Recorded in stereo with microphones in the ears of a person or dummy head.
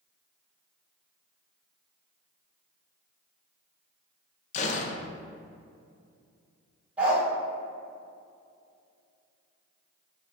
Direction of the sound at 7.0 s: 5° right (ahead or behind).